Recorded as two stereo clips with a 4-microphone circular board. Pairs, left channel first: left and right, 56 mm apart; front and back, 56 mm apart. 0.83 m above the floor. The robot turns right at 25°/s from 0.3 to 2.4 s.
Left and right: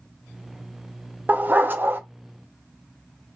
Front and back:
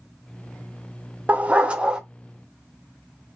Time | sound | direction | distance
1.3 | a dog barking | 130° right | 0.6 m